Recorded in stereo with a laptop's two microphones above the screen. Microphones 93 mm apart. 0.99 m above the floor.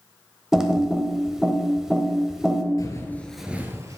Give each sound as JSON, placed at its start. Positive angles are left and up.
{"t": 0.5, "sound": "typing on a keyboard", "side_deg": -5, "distance_m": 0.9}
{"t": 2.8, "sound": "footsteps", "side_deg": 40, "distance_m": 1.2}